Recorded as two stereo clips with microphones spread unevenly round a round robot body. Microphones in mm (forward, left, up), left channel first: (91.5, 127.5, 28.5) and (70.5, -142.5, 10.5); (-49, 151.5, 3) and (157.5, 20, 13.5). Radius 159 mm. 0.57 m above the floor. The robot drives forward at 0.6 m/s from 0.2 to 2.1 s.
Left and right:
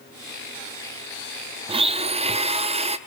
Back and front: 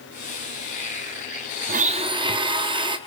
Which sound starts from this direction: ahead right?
A blender, at 1.7 s.